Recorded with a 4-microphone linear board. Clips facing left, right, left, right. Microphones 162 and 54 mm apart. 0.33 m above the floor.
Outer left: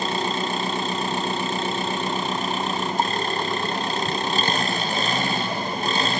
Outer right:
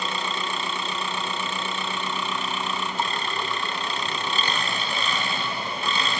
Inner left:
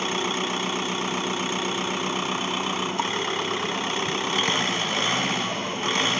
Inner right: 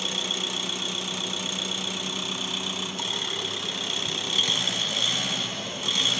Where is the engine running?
45° left (ahead or behind), 2.0 m.